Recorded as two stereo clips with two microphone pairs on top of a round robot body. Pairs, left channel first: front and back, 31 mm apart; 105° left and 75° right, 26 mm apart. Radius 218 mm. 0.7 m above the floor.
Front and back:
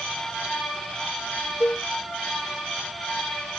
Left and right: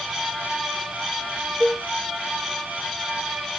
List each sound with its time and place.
1.6 s a cowbell: 20° left, 0.9 m